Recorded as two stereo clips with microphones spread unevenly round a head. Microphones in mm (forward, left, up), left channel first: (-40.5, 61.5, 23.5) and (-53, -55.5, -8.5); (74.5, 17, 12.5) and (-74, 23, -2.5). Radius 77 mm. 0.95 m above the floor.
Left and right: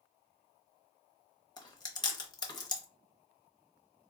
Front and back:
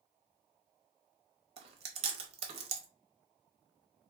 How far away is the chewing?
About 0.7 m.